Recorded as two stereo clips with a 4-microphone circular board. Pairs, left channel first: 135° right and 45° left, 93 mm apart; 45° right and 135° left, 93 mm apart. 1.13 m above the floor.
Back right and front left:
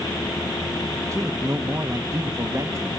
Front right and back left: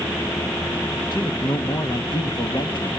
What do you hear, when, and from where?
1.1 s a man speaking: 10° right, 1.4 m